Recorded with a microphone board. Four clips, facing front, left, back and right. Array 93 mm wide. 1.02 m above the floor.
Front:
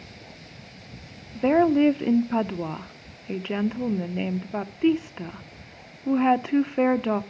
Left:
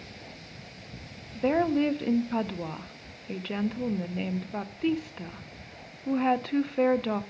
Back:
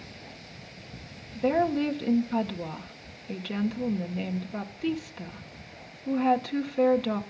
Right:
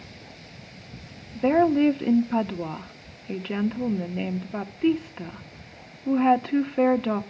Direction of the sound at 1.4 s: 25° right.